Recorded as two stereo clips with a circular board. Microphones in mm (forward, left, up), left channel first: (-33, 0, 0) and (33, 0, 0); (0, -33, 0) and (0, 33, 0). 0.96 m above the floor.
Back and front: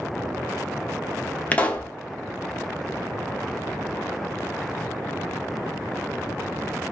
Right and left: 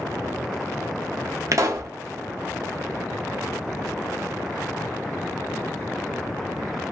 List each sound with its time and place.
1.5 s a pop: 115° left, 0.7 m